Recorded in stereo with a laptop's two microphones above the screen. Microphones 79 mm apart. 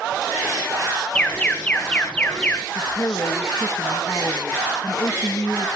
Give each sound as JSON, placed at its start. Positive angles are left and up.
{"t": 1.1, "sound": "an alarm", "side_deg": 15, "distance_m": 1.6}
{"t": 2.8, "sound": "a woman speaking", "side_deg": 40, "distance_m": 1.6}